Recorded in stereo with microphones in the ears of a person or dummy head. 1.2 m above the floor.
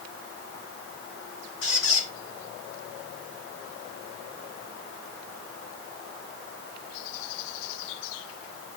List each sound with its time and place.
1.6 s a squeak: 75° left (ahead or behind), 2 m